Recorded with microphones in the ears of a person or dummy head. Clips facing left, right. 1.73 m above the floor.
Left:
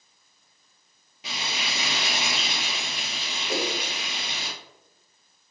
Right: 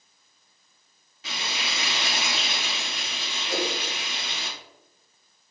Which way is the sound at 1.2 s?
15° left (ahead or behind).